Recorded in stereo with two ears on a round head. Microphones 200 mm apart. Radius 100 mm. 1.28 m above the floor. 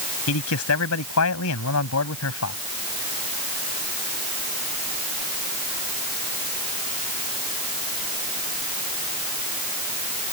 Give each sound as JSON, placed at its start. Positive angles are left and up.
{"t": 0.3, "sound": "a man speaking", "side_deg": 75}